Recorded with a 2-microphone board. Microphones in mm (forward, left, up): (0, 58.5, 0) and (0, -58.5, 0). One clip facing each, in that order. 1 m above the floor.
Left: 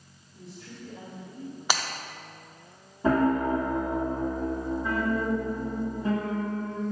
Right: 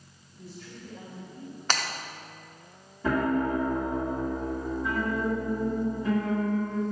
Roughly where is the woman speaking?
Left.